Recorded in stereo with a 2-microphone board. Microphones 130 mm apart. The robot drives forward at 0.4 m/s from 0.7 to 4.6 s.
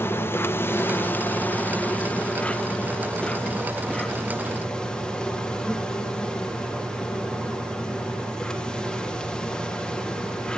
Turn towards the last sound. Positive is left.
turn(degrees=5)  # may be behind; listen again after turning